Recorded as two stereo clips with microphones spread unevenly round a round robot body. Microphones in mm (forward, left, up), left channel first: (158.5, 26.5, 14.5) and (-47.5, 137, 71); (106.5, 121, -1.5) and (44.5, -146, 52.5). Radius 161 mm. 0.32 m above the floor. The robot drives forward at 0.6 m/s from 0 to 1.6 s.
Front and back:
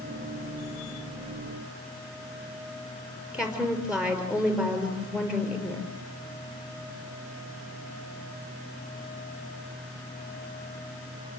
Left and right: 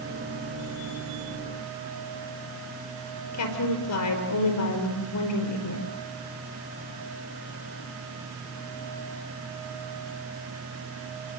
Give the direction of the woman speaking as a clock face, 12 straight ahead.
10 o'clock.